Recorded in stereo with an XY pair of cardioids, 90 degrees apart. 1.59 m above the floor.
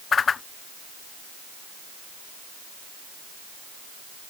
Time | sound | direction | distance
0.1 | a whoosh | 50° left | ?